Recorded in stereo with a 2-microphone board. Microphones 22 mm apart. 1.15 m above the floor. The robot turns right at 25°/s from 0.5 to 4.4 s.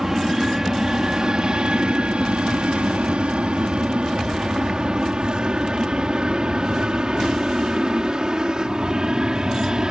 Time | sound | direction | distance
0.0 | an aircraft | 25° right (ahead or behind) | ?